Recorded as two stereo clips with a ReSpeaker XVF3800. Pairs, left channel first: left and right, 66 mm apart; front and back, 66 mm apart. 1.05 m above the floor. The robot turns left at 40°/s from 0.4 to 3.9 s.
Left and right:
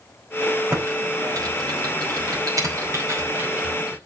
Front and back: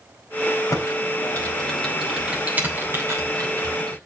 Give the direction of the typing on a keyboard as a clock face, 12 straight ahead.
1 o'clock.